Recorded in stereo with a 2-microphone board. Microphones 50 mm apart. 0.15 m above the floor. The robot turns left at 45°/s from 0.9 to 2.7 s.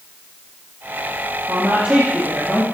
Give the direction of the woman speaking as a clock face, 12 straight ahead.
4 o'clock.